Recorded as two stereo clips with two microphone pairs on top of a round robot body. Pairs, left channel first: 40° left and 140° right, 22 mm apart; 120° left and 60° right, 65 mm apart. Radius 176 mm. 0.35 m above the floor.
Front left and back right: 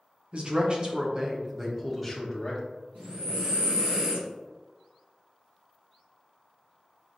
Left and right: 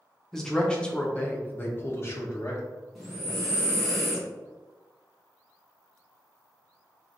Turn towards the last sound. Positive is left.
turn(degrees=-155)